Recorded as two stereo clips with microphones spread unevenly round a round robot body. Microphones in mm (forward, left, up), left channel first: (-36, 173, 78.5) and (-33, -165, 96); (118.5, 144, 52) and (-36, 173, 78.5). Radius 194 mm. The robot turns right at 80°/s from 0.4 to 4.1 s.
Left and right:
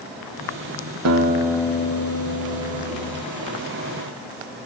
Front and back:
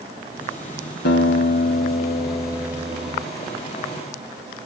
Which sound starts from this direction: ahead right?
A guitar, at 1.1 s.